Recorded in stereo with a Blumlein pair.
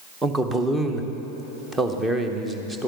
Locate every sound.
0.2 s a man speaking: 10° right, 0.9 m